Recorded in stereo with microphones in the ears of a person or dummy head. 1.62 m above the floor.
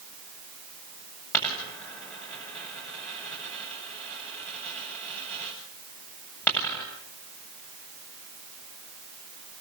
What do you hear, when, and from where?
1.3 s a dropped coin: 10° left (ahead or behind), 9 m